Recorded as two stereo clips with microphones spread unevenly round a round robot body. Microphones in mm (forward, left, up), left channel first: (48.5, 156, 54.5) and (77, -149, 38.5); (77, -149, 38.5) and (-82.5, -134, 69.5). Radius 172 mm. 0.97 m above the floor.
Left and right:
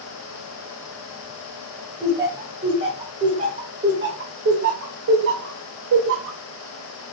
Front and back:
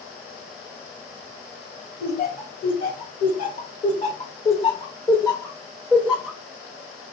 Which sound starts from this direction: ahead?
Laughter, at 2.0 s.